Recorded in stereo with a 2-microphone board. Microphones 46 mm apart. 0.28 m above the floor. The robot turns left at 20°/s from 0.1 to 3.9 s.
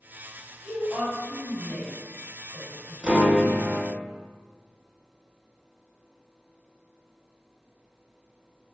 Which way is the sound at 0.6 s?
30° left (ahead or behind).